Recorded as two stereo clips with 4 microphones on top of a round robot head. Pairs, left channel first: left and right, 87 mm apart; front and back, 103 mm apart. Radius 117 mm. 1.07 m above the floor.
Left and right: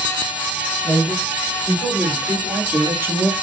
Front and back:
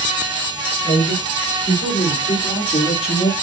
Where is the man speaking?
15° right, 5.5 m; by 3.3 s 30° right, 1.7 m.